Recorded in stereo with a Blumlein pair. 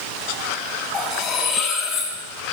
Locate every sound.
0.9 s cutlery clinking: 35° left, 4.5 m